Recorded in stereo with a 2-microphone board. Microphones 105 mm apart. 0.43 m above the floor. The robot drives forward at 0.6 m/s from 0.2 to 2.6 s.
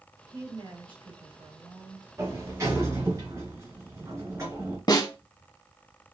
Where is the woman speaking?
60° right (ahead or behind), 3 m; by 2.1 s 50° right (ahead or behind), 3.5 m.